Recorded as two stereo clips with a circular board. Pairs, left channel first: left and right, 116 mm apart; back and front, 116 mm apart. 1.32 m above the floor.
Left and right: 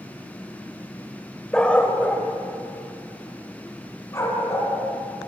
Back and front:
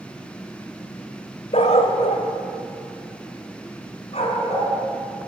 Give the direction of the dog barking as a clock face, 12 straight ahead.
6 o'clock.